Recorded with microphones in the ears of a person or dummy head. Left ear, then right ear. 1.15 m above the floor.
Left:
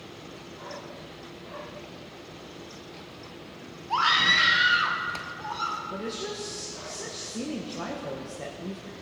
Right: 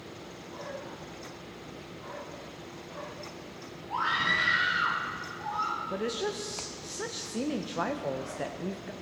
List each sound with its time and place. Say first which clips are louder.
3.9 s a scream: left 6 dB; 40° left (ahead or behind), 1.1 m; by 5.8 s 30° left (ahead or behind), 2.5 m
5.9 s a woman speaking: right 2 dB; 40° right (ahead or behind), 0.5 m